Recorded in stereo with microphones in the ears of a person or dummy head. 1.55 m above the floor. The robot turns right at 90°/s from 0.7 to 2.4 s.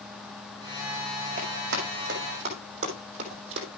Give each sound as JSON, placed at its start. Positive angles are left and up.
{"t": 1.4, "sound": "running footsteps", "side_deg": -45, "distance_m": 5.5}